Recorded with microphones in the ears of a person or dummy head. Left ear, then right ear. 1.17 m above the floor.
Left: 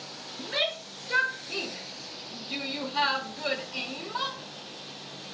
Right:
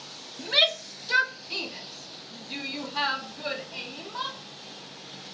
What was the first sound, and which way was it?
A shout, 35° right (ahead or behind).